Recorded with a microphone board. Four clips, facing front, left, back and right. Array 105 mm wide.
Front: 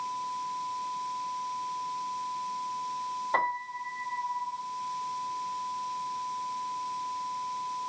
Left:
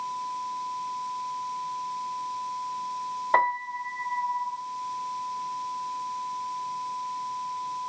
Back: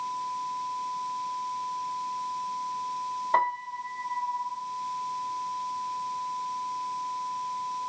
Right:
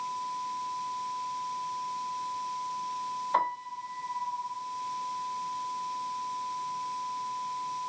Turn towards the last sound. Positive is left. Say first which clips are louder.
# left 6 dB, back 4 dB
turn(degrees=95)